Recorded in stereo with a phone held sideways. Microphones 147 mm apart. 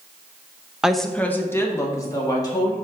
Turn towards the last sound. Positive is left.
turn(degrees=25)  # may be behind; listen again after turning